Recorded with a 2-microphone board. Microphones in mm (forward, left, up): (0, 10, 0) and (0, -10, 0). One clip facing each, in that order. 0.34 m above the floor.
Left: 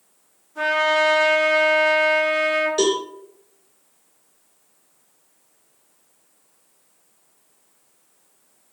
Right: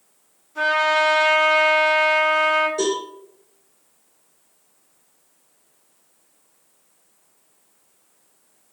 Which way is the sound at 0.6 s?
40° right (ahead or behind).